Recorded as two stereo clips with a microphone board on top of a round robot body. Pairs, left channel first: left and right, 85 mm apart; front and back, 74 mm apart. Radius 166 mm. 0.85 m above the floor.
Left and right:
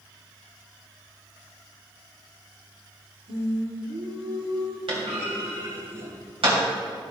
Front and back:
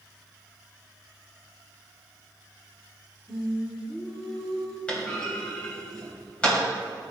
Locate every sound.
3.3 s singing: 85° right, 1.9 m
4.9 s a clunk: 75° right, 3 m